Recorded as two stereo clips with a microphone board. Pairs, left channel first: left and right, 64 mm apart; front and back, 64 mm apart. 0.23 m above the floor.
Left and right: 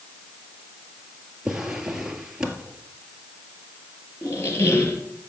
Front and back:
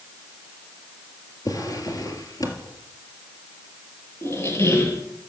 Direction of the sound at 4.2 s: 45° left.